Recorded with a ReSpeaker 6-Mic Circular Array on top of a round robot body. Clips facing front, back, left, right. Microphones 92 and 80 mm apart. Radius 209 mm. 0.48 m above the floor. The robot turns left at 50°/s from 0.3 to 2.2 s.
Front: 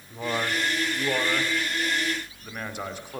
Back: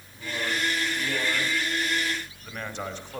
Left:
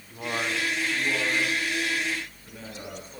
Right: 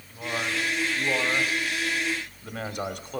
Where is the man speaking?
15° left, 2.5 m; by 3.2 s 80° right, 2.5 m.